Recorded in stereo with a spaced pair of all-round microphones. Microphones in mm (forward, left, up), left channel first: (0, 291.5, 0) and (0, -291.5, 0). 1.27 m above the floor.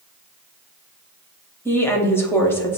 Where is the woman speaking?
5° left (ahead or behind), 0.6 m.